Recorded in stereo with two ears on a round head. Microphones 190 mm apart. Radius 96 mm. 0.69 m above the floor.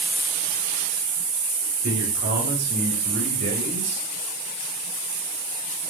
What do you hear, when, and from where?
1.8 s a man speaking: 55° right (ahead or behind), 3.5 m; by 4.0 s 30° right (ahead or behind), 3 m